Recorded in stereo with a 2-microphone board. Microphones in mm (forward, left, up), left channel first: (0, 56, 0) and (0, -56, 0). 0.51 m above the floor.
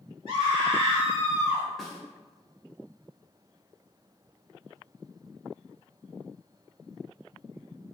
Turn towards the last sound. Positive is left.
turn(degrees=0)  # may be behind; listen again after turning